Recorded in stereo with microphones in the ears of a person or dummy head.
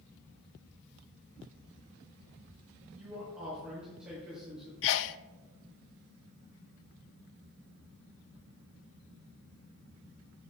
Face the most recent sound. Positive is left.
turn(degrees=65)  # may be behind; listen again after turning